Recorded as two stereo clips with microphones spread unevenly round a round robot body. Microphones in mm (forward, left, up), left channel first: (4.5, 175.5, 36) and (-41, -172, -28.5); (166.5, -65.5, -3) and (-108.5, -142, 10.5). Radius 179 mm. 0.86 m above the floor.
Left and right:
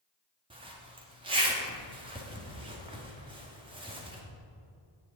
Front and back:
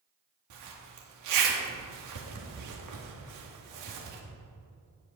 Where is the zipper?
165° right, 1.9 m.